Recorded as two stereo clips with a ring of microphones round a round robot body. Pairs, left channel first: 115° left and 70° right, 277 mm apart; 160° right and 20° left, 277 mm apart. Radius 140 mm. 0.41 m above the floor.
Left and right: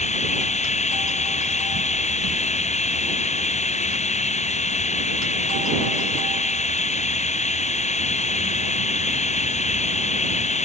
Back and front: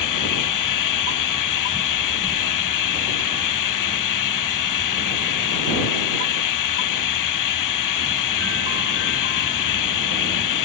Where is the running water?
Straight behind.